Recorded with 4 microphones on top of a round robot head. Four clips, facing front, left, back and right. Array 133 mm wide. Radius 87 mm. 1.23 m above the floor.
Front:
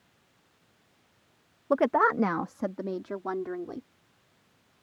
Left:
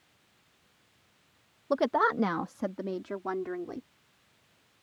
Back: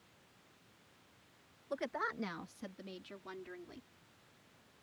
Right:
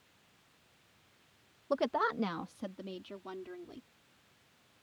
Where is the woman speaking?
15° left; by 3.9 s 40° left.